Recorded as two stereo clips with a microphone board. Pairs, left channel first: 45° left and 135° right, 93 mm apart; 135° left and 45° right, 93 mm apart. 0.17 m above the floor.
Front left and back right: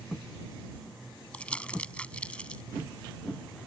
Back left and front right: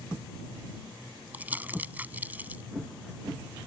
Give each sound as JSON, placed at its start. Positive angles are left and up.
{"t": 1.3, "sound": "crumpling", "azimuth_deg": -10}